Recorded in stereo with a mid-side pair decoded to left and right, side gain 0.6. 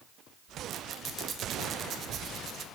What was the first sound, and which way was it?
A squeak, 45° right.